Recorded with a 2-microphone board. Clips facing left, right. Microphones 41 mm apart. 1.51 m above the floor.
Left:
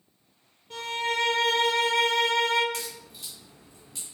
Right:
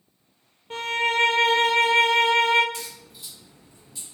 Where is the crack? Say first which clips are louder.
Left 1 dB; 65° left (ahead or behind), 1.9 m.